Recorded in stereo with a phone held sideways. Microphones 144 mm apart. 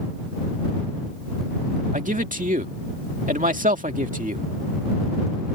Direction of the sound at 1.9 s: 65° right (ahead or behind).